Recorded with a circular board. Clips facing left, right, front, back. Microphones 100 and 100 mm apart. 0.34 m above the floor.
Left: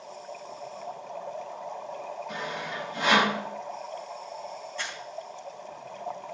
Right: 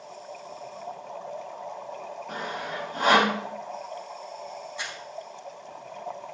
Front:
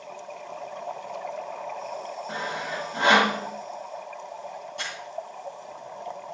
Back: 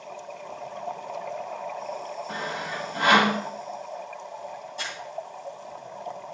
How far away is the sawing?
About 2 m.